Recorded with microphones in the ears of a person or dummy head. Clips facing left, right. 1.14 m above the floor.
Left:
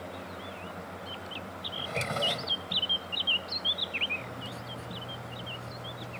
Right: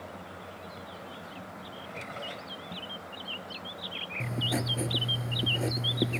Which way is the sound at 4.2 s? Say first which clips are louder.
Right 8 dB; 75° right (ahead or behind).